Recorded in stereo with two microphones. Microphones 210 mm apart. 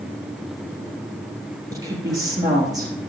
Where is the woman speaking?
15° right (ahead or behind), 4 m.